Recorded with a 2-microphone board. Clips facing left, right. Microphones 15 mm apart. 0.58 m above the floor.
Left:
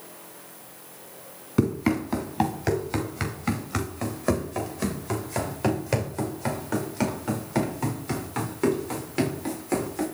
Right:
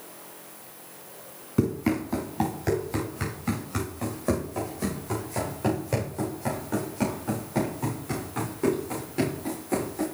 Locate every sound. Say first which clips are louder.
1.6 s running footsteps: left 2 dB; 35° left (ahead or behind), 3 m; by 10.1 s 65° left (ahead or behind), 7.5 m